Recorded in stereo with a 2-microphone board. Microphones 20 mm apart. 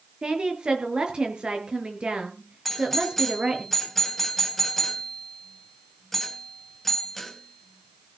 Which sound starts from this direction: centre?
A doorbell, at 2.6 s.